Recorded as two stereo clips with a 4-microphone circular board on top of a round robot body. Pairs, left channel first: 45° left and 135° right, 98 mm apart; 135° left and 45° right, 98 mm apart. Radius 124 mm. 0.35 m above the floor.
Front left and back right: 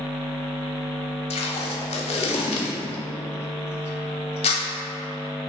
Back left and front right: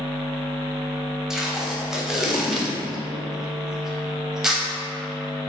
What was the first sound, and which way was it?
Tape being pulled, 40° left.